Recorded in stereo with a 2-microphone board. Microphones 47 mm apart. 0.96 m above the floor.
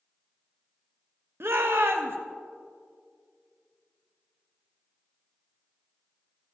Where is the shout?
60° right (ahead or behind), 0.8 m.